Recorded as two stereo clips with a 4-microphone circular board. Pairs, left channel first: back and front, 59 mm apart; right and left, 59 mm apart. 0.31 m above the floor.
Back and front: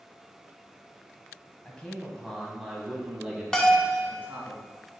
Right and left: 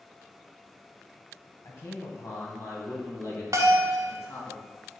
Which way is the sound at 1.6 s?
110° right.